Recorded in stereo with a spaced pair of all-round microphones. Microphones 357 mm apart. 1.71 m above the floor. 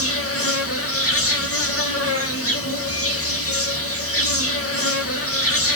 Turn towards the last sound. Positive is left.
turn(degrees=40)  # may be behind; listen again after turning